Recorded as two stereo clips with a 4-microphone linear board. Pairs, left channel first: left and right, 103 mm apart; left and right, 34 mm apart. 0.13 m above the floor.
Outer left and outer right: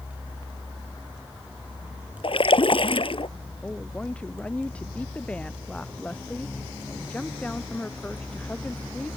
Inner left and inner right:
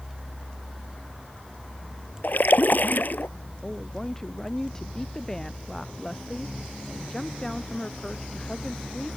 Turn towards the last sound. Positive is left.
turn(degrees=10)  # may be behind; listen again after turning